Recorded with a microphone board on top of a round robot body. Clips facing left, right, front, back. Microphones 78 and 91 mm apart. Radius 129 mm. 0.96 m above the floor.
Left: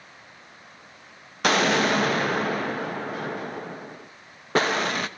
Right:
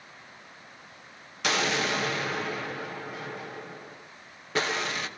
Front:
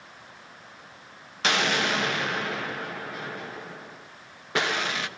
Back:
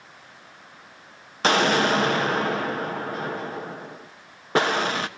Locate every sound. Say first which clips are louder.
1.4 s an explosion: left 7 dB, back 6 dB; 130° left, 1.1 m